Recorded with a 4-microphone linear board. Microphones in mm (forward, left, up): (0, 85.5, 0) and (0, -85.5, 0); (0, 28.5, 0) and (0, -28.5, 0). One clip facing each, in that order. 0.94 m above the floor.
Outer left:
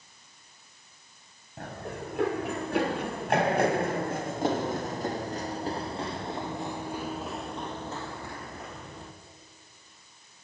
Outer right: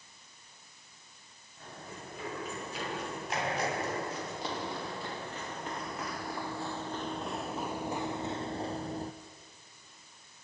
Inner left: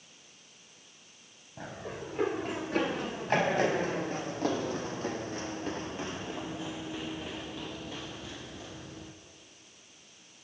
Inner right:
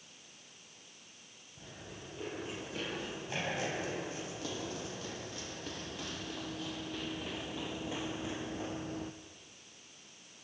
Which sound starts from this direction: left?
Running footsteps, at 1.6 s.